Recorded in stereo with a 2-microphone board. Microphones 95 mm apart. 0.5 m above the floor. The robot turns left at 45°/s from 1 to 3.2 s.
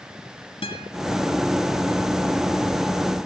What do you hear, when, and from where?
0.6 s a guitar: 70° left (ahead or behind), 4.5 m